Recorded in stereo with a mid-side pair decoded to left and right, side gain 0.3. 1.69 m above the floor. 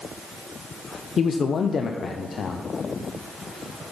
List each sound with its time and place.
1.2 s a man speaking: 65° left, 0.7 m